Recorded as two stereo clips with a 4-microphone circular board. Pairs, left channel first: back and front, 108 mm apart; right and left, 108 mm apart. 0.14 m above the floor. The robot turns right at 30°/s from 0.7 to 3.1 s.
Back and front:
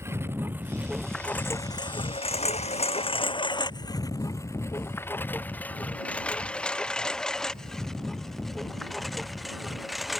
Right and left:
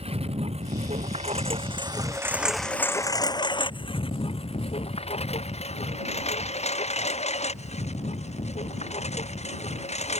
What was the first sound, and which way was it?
A lawn mower, 65° left.